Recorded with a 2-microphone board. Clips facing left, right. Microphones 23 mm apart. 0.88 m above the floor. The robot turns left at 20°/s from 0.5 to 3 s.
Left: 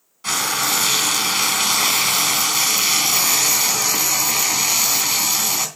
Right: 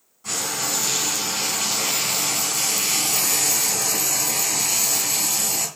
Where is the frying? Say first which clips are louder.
Left 6 dB; 105° left, 2.5 m; by 5.7 s 55° left, 2.5 m.